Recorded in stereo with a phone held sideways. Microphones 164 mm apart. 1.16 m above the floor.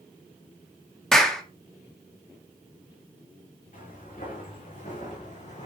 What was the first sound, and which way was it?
A clap, 5° left (ahead or behind).